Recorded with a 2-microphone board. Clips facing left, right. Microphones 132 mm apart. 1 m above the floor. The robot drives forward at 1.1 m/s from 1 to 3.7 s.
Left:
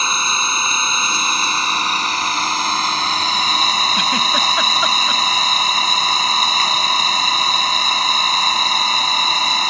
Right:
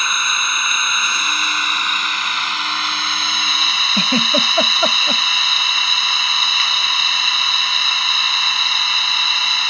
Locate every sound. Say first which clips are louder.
0.0 s an engine running: left 2 dB; 30° left (ahead or behind); by 9.7 s 40° left (ahead or behind)
3.9 s a giggle: right 1 dB; 35° right (ahead or behind)